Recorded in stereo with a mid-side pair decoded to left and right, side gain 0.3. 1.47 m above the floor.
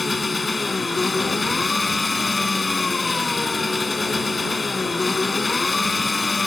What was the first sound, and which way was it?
An engine running, 35° left.